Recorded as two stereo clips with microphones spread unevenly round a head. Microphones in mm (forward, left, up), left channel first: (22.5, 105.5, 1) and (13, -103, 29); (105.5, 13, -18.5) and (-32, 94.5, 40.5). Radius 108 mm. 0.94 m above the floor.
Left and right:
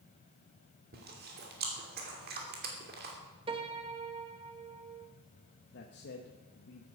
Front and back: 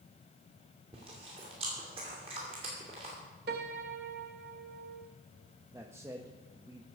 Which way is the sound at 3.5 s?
160° right.